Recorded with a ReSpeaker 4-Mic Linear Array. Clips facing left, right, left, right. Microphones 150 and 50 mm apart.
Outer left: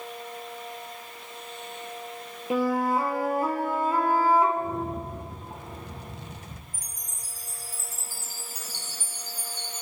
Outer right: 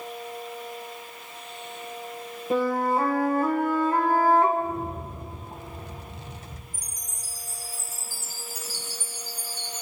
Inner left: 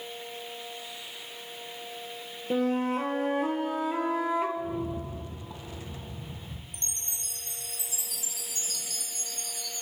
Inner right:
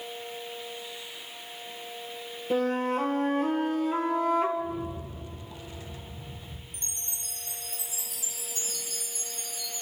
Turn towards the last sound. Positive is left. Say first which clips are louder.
# outer right 1 dB, inner left 1 dB
turn(degrees=60)  # may be behind; listen again after turning